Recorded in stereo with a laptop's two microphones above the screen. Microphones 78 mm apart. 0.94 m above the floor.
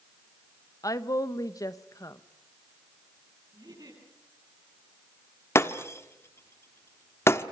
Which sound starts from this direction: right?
A giggle, at 3.5 s.